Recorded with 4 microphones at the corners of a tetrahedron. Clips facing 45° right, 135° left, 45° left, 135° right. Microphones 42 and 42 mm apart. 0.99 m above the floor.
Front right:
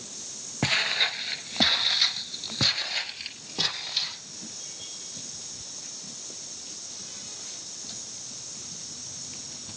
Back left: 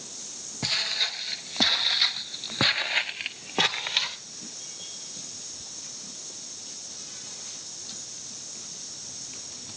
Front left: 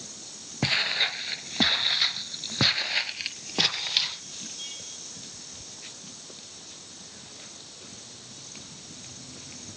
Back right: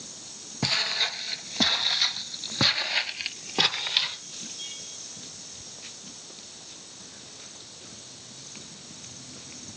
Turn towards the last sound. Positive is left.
turn(degrees=145)